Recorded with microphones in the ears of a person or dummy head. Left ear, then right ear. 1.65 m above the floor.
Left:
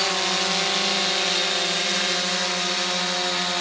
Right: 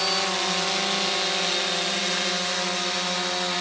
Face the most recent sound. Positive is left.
No sound to turn to.